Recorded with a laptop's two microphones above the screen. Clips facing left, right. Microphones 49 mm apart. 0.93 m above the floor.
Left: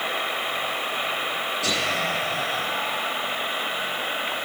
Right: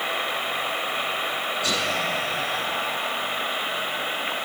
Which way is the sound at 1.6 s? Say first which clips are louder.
Left 1 dB; 85° left.